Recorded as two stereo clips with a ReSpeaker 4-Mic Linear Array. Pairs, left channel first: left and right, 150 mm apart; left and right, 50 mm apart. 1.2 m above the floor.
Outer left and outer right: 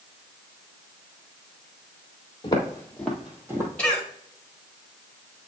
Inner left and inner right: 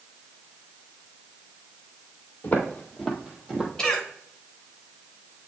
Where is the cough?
5° left (ahead or behind), 2 m.